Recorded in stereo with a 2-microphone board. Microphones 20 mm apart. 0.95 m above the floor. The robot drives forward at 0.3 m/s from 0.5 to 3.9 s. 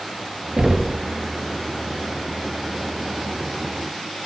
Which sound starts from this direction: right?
Knocking, at 0.6 s.